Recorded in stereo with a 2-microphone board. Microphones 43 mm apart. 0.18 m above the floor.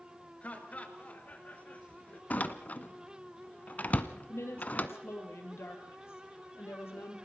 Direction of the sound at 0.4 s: 35° left (ahead or behind).